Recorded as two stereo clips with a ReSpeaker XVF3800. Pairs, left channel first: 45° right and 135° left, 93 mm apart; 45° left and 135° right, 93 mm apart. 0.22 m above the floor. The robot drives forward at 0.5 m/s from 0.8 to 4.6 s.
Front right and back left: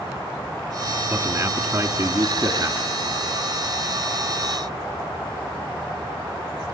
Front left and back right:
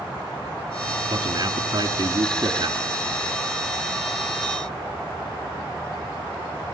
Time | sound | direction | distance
1.1 | a man speaking | 165° right | 1.6 m